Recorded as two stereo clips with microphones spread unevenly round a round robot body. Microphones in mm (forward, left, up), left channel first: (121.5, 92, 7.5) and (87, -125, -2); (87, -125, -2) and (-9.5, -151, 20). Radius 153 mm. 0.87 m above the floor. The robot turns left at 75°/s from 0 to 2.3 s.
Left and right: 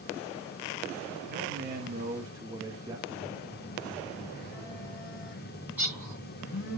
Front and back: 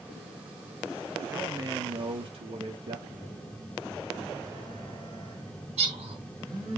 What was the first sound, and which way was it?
A man speaking, 90° right.